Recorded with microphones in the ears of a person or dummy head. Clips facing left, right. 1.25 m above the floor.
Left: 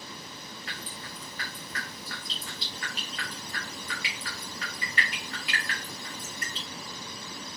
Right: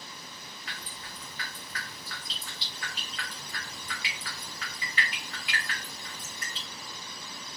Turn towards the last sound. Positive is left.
turn(degrees=20)  # may be behind; listen again after turning